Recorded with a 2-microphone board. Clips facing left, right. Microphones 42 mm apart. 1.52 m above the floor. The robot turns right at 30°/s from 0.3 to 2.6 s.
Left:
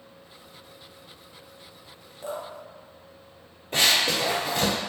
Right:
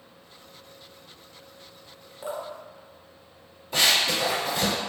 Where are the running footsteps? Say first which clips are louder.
Even; 40° left (ahead or behind), 1.9 m; by 4.7 s 50° left (ahead or behind), 2.5 m.